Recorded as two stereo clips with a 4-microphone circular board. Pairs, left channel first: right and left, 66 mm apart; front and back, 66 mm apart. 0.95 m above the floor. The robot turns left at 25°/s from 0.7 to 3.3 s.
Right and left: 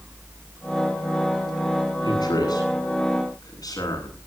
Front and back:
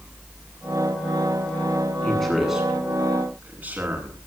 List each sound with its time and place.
2.0 s a man speaking: 80° right, 9.5 m; by 4.2 s 110° right, 9.5 m